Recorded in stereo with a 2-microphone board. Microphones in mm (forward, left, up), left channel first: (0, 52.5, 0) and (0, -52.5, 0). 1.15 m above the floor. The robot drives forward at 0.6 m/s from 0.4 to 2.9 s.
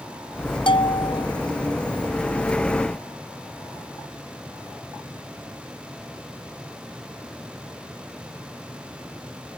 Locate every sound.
0.7 s a bell: 55° left (ahead or behind); by 1.3 s 60° left (ahead or behind)